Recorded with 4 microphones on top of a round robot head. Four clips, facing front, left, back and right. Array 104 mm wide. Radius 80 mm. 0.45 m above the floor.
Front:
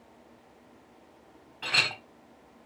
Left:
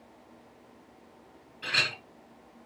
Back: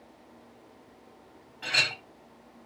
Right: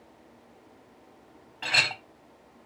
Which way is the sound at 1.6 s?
90° right.